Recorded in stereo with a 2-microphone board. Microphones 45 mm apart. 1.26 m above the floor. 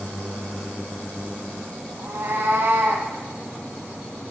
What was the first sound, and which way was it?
A cat meowing, 65° right (ahead or behind).